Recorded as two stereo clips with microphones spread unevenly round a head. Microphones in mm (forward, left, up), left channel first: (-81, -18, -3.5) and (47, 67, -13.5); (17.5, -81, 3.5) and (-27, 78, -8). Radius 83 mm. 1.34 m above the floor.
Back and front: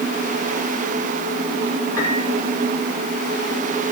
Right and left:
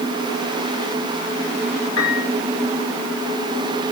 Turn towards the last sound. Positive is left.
turn(degrees=-75)